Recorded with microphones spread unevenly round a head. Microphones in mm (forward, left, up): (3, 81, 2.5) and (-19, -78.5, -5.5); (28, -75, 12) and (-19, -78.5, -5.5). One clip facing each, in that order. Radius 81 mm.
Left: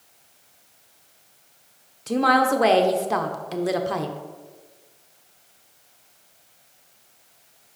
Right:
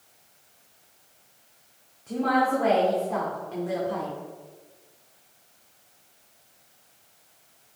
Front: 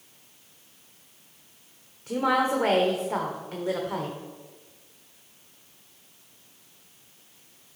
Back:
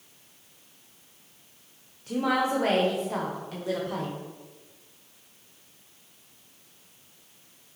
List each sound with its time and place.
2.1 s a woman speaking: 85° left, 0.9 m